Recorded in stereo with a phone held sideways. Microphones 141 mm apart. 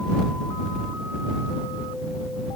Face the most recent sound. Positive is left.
No sound to turn to.